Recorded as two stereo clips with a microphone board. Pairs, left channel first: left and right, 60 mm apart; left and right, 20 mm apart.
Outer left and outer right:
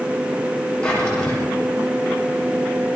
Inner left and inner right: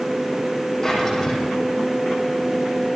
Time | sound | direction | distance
0.8 | a drawer | 15° left (ahead or behind) | 9.5 m